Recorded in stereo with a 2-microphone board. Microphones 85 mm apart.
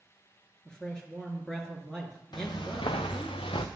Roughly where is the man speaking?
Centre.